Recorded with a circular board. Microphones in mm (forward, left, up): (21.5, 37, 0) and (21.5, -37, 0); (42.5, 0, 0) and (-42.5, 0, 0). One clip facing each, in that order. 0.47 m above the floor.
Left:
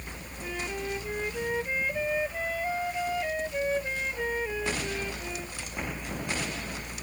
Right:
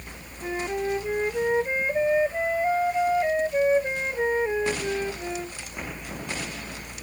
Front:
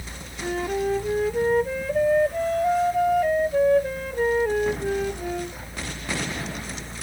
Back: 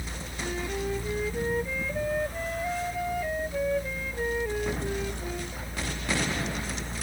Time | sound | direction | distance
0.4 | a flute | 30° right | ?